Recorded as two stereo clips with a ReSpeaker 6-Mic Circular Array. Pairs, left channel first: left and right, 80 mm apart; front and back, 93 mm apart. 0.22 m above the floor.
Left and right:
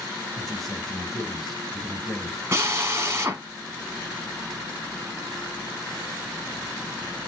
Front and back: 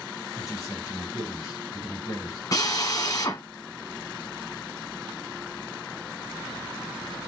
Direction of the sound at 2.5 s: 40° right.